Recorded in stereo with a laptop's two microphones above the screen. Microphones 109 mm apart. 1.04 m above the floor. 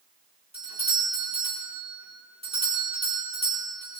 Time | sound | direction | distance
0.5 | a doorbell | 70° right (ahead or behind) | 4.5 m